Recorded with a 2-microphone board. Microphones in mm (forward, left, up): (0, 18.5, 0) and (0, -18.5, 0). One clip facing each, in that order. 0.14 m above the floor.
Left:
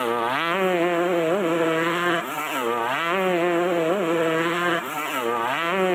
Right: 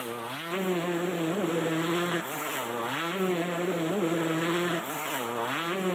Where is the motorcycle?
55° left (ahead or behind).